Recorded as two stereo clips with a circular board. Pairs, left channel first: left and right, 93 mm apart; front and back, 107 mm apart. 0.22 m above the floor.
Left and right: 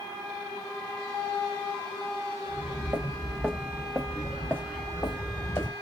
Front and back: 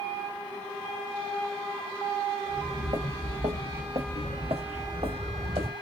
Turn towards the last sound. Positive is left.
turn(degrees=145)